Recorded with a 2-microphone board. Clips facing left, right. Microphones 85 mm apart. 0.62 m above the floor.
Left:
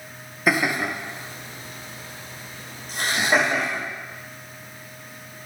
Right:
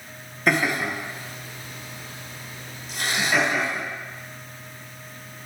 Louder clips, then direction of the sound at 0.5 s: Even; 5° left (ahead or behind).